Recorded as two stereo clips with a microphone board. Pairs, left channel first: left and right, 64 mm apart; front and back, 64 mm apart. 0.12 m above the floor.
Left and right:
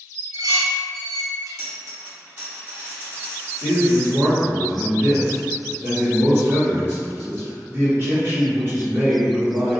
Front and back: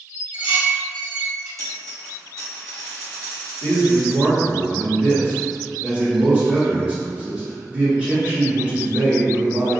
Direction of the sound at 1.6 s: 145° right.